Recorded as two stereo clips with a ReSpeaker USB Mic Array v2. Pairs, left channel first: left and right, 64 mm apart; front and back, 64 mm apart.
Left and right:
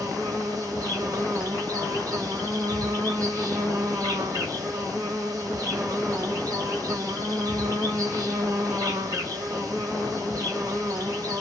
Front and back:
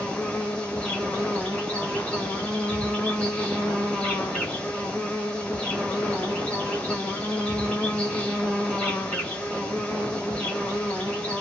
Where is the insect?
70° right, 1.5 m.